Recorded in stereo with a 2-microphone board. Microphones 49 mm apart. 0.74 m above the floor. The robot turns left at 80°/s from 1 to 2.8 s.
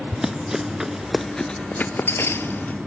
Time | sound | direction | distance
0.1 | running footsteps | 10° right (ahead or behind) | 0.7 m